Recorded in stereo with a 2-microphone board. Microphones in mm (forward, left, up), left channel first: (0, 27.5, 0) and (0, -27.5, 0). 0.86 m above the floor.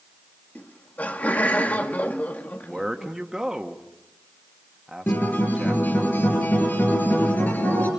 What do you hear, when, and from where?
0.6 s laughter: 30° left (ahead or behind), 1.8 m
2.6 s a man speaking: 10° right (ahead or behind), 1.5 m
5.1 s a guitar: 35° left (ahead or behind), 5.5 m